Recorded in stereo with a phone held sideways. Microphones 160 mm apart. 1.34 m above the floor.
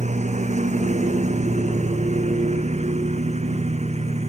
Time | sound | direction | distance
0.0 | a lawn mower | 45° right (ahead or behind) | ?